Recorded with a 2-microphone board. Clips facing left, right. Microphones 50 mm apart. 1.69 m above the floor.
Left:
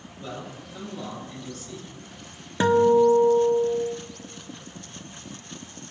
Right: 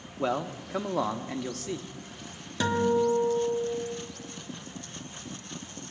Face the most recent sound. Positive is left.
turn(degrees=25)  # may be behind; listen again after turning